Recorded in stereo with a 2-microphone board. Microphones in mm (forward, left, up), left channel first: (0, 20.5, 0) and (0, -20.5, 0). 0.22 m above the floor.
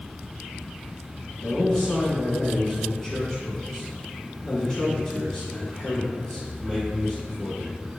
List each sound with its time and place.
1.4 s a man speaking: 15° left (ahead or behind), 2.0 m